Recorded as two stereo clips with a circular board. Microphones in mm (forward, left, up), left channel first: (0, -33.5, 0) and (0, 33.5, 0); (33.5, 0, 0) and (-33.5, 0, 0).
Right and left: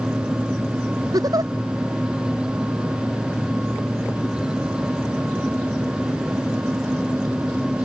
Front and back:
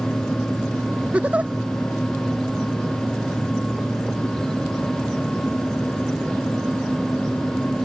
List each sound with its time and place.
1.1 s a giggle: 110° left